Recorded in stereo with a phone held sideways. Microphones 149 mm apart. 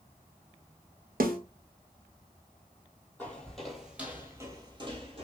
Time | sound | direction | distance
1.2 | a snare drum | 80° right | 0.7 m
3.2 | footsteps | 10° left (ahead or behind) | 1.6 m